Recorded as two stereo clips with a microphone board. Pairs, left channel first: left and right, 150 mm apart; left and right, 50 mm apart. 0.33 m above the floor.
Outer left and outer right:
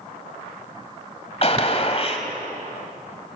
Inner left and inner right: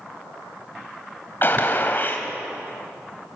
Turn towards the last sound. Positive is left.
turn(degrees=45)  # may be behind; listen again after turning